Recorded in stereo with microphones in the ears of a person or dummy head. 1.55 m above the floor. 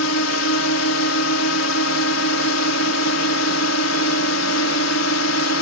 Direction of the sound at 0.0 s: 70° left (ahead or behind).